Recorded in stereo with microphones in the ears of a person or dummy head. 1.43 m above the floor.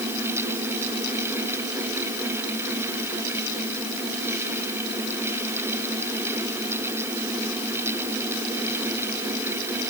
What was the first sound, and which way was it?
Only background noise.